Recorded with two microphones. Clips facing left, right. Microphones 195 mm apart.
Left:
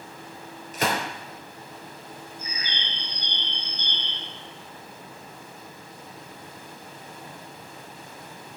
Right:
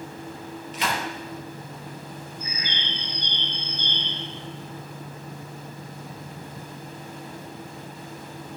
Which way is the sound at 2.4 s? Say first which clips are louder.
Right 3 dB; 20° right (ahead or behind).